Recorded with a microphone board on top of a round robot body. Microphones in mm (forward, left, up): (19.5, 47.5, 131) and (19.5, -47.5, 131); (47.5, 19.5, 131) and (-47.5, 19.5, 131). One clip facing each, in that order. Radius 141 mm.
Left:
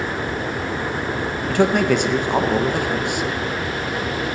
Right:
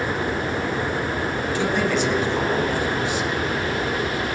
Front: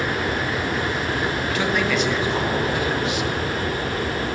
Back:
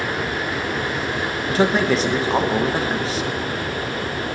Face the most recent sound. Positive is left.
turn(degrees=125)